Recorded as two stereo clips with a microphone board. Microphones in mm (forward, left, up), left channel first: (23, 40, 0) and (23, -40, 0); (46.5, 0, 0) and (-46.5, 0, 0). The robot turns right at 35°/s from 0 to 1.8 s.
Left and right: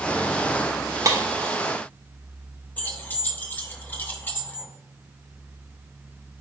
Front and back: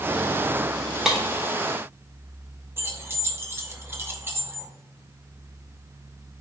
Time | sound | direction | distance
1.1 | breaking glass | 100° right | 0.9 m
2.8 | keys jangling | 140° left | 0.7 m